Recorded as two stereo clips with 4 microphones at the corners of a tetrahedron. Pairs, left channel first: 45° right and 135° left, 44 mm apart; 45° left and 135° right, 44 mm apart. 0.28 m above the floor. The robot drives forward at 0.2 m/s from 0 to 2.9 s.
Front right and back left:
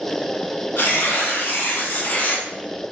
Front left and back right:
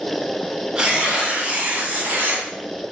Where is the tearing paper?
65° right, 0.7 m; by 2.5 s 95° right, 0.6 m.